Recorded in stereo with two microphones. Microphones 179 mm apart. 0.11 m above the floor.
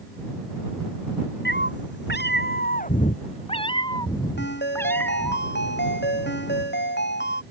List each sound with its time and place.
1.4 s a cat meowing: 80° left; by 5.4 s 10° left (ahead or behind)
4.4 s a ringtone: 80° left